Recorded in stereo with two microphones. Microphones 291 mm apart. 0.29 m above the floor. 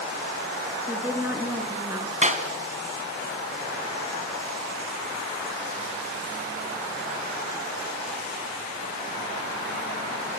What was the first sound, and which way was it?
A woman speaking, 5° right (ahead or behind).